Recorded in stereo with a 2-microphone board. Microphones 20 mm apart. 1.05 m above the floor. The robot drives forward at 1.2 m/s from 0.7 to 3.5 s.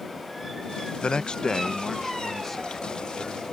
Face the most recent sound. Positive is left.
turn(degrees=10)  # may be behind; listen again after turning